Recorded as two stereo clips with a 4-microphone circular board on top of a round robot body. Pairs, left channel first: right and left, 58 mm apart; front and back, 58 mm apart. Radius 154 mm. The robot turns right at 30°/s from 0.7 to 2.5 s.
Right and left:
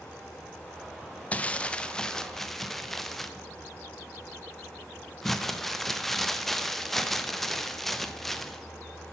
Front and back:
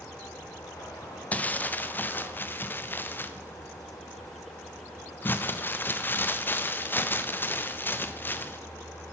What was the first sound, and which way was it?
Crumpling, 40° right.